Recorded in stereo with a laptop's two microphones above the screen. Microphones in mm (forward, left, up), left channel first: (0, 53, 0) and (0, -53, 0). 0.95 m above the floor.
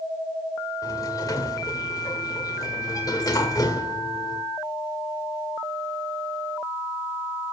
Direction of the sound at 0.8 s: 35° left (ahead or behind).